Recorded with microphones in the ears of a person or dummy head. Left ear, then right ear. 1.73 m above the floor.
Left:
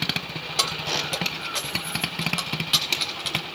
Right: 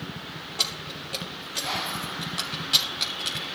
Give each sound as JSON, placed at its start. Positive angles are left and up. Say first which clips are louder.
{"t": 0.6, "sound": "keys jangling", "louder": "left 5 dB", "side_deg": 45, "distance_m": 3.5}